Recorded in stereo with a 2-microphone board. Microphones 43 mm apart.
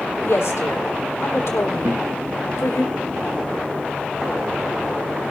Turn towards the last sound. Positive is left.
turn(degrees=-75)  # may be behind; listen again after turning